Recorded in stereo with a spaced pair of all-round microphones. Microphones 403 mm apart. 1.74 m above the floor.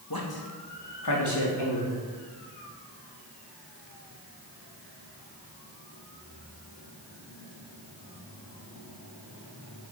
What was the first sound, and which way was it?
A man speaking, 55° left (ahead or behind).